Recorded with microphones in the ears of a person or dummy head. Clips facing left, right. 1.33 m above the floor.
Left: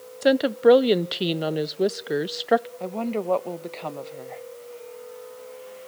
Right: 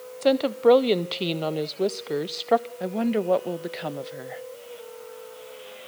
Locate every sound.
0.2 s a woman speaking: 10° left (ahead or behind), 0.5 m
2.8 s a woman speaking: 15° right (ahead or behind), 1.0 m